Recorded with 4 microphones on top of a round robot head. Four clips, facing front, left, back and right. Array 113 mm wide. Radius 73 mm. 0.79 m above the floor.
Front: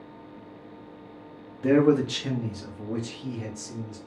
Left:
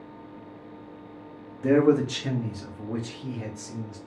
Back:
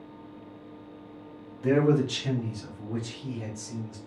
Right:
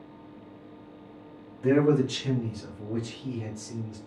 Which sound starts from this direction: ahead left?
A man speaking, at 1.6 s.